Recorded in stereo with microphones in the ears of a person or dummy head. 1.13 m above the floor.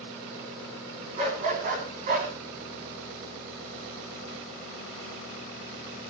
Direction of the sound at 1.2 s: 40° right (ahead or behind).